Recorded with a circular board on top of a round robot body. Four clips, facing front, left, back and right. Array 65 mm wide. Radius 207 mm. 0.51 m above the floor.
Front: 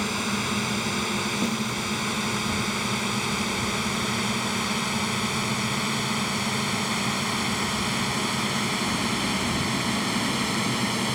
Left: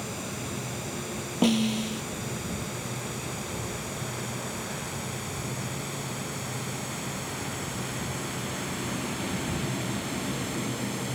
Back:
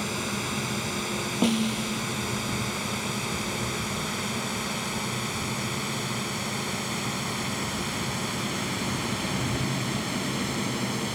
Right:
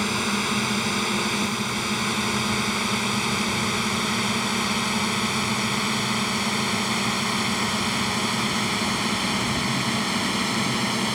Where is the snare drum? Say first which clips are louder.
Left 2 dB, back 2 dB; 125° left.